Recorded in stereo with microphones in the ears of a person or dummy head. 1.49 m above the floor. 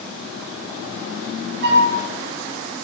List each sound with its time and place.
1.6 s a flute: 65° right (ahead or behind), 6.5 m